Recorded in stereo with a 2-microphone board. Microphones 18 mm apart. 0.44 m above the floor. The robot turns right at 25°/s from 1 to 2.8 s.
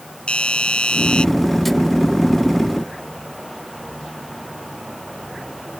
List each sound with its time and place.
0.3 s a doorbell: 70° left (ahead or behind); by 1.2 s 65° left (ahead or behind)